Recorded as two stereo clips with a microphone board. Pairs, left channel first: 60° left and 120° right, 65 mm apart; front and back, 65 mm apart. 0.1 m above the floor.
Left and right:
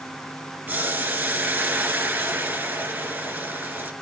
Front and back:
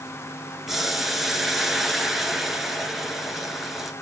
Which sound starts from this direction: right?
Boiling, at 0.7 s.